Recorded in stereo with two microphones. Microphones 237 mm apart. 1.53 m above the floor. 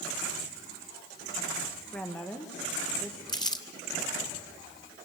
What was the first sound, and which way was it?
A woman speaking, 5° left (ahead or behind).